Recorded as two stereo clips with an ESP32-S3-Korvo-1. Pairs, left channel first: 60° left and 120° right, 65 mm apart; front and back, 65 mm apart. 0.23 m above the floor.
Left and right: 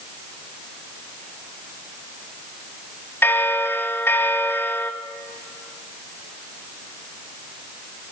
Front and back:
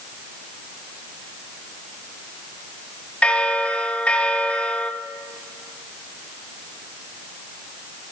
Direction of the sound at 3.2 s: 55° left.